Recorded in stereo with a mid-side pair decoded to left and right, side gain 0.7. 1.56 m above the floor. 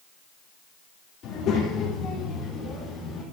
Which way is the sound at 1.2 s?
50° left.